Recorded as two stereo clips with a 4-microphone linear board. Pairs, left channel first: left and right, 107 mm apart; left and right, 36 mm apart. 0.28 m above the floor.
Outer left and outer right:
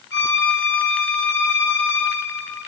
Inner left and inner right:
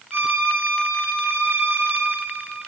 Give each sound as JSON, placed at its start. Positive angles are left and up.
{"t": 0.1, "sound": "a violin", "side_deg": -80, "distance_m": 1.3}